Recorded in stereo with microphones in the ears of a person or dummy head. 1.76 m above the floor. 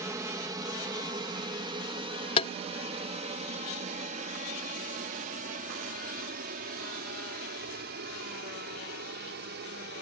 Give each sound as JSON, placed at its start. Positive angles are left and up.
{"t": 0.0, "sound": "an aircraft", "side_deg": -15}
{"t": 2.4, "sound": "tapping", "side_deg": 30}